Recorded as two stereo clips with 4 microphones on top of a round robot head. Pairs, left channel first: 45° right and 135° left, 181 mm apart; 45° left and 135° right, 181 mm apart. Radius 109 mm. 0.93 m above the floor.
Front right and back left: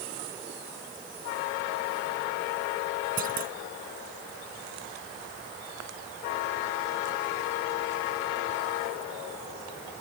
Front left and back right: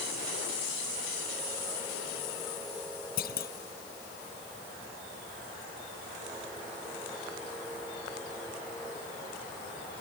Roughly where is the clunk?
Left.